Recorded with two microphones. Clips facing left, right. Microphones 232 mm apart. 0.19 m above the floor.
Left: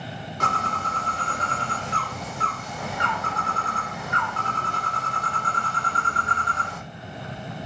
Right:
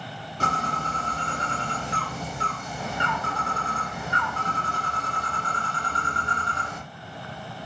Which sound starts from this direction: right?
A bird, at 0.4 s.